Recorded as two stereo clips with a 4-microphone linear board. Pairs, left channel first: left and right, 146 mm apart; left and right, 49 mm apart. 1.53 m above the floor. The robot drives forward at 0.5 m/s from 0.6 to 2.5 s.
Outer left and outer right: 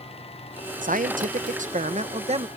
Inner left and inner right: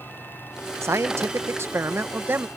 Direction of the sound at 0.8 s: 65° right (ahead or behind).